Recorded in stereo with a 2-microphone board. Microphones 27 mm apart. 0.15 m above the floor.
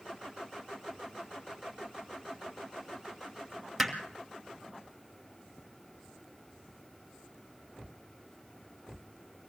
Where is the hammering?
Centre (ahead or behind), 2.5 m.